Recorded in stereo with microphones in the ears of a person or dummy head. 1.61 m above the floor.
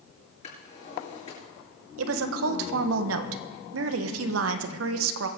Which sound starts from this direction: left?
A drawer, at 0.4 s.